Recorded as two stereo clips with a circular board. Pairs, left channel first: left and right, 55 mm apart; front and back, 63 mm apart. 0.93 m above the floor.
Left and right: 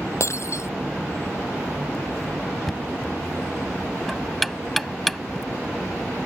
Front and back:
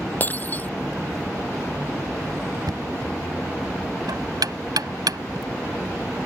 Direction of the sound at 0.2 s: 60° left.